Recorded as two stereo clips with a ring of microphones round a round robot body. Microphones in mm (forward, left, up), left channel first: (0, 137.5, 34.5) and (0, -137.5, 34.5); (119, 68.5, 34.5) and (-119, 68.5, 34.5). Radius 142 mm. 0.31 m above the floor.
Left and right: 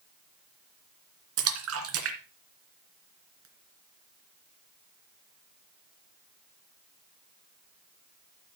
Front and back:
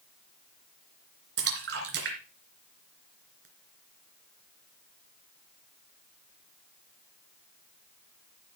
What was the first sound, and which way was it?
A splash, 130° right.